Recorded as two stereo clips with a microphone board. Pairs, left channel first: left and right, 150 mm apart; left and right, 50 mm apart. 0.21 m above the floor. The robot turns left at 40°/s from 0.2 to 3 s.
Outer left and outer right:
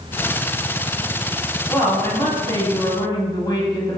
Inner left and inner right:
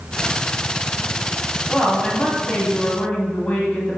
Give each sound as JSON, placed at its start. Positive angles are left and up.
{"t": 1.7, "sound": "a woman speaking", "side_deg": 20, "distance_m": 1.0}